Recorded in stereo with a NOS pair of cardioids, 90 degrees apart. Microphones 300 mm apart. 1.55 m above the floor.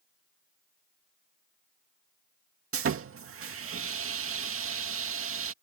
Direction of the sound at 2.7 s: 45° right.